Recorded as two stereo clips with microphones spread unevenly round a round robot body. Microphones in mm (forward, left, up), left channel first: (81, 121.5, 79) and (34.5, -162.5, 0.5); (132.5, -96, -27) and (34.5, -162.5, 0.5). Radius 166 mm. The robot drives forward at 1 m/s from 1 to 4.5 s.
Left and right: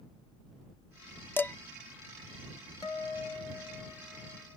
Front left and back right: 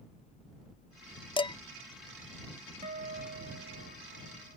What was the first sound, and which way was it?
Dishes clattering, 5° right.